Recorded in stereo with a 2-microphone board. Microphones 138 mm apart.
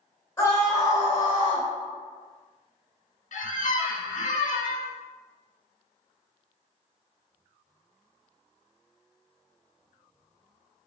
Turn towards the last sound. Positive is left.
turn(degrees=65)  # may be behind; listen again after turning